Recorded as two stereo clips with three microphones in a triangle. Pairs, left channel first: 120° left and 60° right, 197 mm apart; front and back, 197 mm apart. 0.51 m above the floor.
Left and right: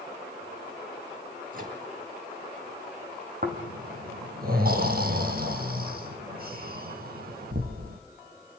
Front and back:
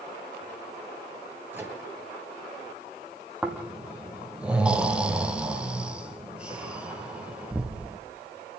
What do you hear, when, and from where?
1.5 s a microwave: 100° right, 8 m
3.4 s snoring: 95° right, 4 m